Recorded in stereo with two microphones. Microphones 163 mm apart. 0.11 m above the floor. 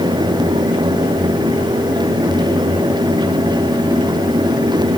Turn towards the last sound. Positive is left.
No sound to turn to.